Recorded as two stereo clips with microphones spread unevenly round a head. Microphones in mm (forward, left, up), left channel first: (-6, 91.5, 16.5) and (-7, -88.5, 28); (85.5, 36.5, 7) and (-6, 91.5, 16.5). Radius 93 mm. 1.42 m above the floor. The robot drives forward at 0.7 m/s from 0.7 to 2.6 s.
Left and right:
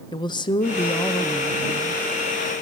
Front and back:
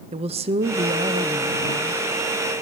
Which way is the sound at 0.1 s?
150° left.